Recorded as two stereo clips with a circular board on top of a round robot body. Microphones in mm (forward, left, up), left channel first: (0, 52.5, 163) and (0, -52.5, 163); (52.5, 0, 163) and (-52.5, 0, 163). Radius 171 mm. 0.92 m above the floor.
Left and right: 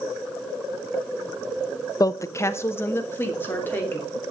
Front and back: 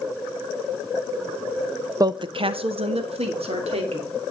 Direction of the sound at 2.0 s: 135° left.